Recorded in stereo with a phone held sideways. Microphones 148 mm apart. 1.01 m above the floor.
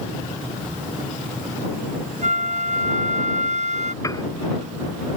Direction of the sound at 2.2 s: 60° right (ahead or behind).